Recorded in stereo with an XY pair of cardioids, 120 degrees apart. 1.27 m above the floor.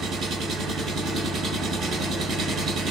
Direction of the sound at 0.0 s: 65° right.